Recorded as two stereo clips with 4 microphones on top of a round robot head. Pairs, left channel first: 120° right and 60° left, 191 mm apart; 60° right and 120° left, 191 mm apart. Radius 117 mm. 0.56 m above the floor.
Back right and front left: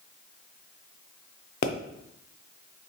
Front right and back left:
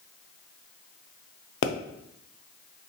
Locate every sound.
1.6 s a pop: 80° right, 0.6 m